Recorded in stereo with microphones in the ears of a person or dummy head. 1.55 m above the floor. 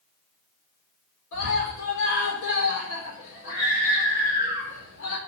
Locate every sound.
1.3 s a scream: 75° left (ahead or behind), 4 m